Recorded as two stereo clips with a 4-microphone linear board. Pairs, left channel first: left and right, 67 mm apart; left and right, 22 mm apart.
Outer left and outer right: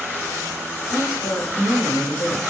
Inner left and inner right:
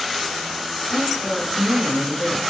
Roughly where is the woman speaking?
Left.